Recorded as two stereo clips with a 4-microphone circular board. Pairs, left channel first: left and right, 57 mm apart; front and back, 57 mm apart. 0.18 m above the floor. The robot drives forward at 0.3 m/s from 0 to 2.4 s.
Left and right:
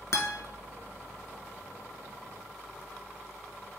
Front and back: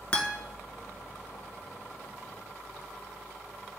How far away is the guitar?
About 0.7 m.